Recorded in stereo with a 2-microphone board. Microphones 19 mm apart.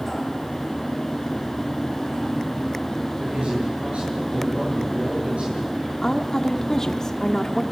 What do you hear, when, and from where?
3.2 s a man speaking: 80° right, 9.5 m
6.0 s a woman speaking: 30° left (ahead or behind), 1.2 m